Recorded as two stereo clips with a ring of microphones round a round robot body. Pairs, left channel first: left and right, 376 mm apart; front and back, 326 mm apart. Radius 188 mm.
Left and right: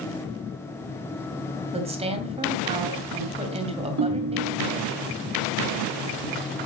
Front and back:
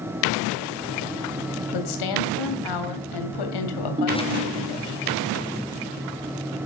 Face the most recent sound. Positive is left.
turn(degrees=-110)